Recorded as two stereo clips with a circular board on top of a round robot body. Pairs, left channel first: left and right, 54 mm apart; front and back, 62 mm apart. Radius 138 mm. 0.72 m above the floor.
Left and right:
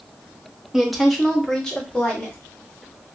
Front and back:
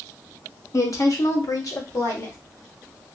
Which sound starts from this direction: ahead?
A woman speaking, at 0.7 s.